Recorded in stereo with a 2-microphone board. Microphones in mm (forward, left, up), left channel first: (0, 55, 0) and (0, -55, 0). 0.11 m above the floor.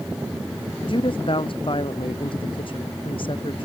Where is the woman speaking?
50° left (ahead or behind).